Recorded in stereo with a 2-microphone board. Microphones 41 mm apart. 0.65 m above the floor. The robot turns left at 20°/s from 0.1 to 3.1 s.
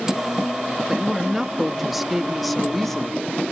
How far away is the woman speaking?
About 1.1 m.